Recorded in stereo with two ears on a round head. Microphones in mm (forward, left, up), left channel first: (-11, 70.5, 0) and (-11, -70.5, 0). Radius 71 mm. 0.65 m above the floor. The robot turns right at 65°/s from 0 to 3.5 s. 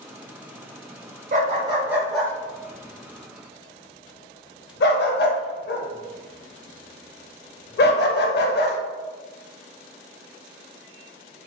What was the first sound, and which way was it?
A dog barking, 50° right (ahead or behind).